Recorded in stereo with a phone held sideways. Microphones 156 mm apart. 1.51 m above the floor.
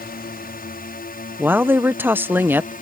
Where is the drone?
70° left (ahead or behind); by 2.8 s 60° left (ahead or behind).